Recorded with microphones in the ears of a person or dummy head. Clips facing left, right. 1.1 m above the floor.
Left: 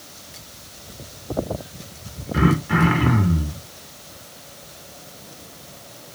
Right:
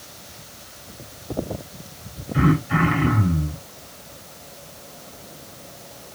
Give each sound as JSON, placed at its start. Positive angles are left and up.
{"t": 2.3, "sound": "throat clearing", "side_deg": 80, "distance_m": 1.9}